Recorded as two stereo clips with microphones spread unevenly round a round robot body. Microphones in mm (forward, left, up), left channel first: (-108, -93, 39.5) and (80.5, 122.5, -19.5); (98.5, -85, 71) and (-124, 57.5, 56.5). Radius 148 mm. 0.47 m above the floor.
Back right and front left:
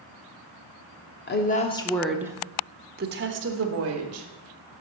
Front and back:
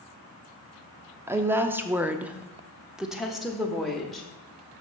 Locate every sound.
1.3 s a woman speaking: 150° right, 0.8 m; by 4.3 s 60° left, 1.6 m